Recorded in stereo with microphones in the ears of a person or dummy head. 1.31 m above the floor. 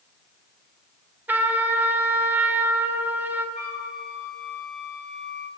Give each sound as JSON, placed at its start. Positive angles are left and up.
{"t": 1.3, "sound": "a trumpet", "side_deg": -10, "distance_m": 0.7}
{"t": 3.5, "sound": "a flute", "side_deg": 5, "distance_m": 4.5}